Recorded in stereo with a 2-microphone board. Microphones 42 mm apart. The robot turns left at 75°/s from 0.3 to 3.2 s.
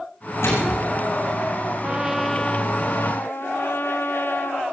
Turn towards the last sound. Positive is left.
turn(degrees=105)